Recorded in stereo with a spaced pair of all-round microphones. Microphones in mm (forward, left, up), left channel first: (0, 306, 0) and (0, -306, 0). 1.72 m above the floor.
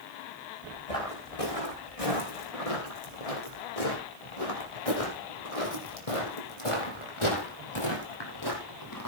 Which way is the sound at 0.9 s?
65° left (ahead or behind).